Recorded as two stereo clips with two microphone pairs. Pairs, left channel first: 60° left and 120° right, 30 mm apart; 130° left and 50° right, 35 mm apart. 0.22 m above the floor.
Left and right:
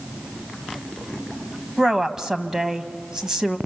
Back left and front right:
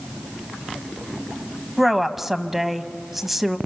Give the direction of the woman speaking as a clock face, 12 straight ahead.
4 o'clock.